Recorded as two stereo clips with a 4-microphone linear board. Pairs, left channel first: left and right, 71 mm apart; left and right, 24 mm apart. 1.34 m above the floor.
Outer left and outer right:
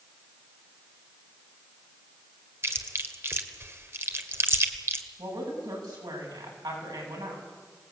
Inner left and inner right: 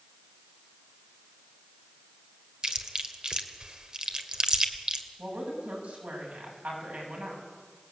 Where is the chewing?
35° right (ahead or behind), 1.6 m.